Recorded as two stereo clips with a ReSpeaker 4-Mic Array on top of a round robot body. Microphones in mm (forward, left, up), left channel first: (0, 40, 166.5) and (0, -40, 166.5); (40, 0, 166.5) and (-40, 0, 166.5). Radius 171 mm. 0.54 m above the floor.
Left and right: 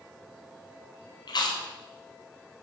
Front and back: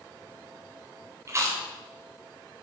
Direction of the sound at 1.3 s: 125° left.